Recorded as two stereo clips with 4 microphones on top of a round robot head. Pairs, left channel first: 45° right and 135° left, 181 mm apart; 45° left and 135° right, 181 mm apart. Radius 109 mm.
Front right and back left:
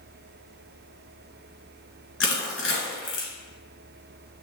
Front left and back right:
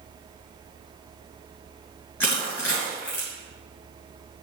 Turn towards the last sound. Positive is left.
turn(degrees=-35)